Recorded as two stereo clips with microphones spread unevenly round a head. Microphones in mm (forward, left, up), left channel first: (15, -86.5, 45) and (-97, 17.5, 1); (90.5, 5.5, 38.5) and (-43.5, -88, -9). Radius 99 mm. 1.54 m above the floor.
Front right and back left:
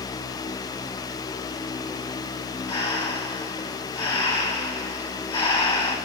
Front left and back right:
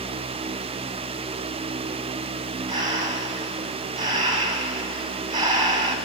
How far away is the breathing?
About 2.0 m.